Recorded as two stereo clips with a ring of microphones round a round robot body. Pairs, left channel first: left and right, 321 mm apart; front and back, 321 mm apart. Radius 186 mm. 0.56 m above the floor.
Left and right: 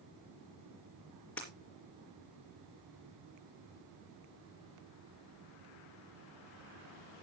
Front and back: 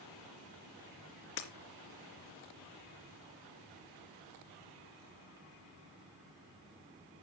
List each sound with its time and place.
1.4 s breaking glass: 5° left, 3 m